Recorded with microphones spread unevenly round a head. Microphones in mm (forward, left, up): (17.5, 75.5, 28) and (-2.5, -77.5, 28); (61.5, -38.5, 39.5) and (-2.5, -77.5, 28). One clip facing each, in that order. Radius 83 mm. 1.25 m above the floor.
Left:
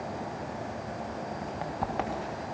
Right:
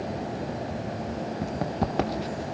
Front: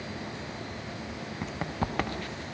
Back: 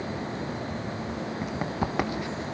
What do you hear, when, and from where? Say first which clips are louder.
1.4 s running footsteps: right 6 dB, back 1 dB; 60° right, 2 m; by 2.4 s 70° right, 1.6 m